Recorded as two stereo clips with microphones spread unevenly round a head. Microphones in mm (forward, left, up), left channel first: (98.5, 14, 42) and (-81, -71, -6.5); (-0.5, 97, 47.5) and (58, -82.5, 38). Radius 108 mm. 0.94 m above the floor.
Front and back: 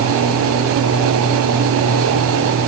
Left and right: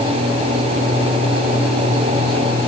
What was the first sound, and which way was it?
Only background noise.